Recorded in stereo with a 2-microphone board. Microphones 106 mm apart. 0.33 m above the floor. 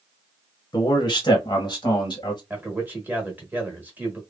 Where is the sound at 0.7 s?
40° left (ahead or behind), 1.2 m; by 2.4 s 45° left (ahead or behind), 1.5 m.